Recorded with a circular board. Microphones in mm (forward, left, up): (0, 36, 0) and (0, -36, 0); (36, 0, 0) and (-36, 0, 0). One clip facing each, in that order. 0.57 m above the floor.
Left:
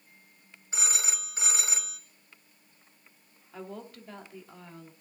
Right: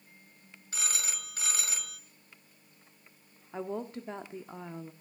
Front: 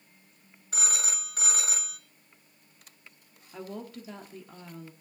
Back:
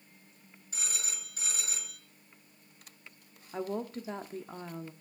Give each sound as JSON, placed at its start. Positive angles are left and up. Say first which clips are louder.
{"t": 0.7, "sound": "a phone ringing", "louder": "left 3 dB, front 8 dB", "azimuth_deg": 20, "distance_m": 1.5}
{"t": 3.5, "sound": "a woman speaking", "louder": "right 6 dB, back 5 dB", "azimuth_deg": -145, "distance_m": 0.9}